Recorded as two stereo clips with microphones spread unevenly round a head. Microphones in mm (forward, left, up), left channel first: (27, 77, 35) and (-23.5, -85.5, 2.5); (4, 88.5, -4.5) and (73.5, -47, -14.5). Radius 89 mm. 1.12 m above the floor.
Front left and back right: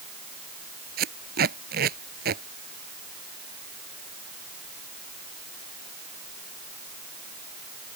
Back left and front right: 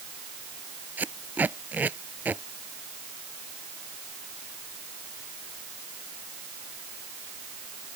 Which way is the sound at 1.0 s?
145° right.